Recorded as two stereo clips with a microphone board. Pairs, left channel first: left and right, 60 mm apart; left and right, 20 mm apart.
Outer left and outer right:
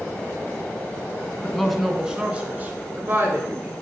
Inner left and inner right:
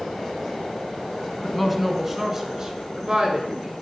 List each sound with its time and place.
1.4 s a woman speaking: 5° left (ahead or behind), 1.2 m; by 3.7 s 45° right (ahead or behind), 1.9 m